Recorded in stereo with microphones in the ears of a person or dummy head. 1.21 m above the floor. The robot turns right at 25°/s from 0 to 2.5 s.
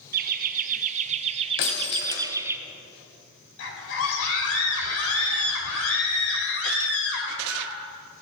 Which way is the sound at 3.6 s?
80° left.